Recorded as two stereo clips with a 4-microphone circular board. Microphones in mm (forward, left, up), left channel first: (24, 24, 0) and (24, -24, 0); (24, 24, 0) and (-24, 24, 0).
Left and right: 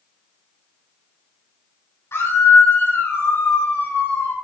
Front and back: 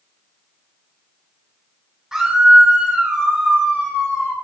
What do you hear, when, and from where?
2.1 s a scream: 95° left, 3.5 m; by 4.3 s 70° left, 2.5 m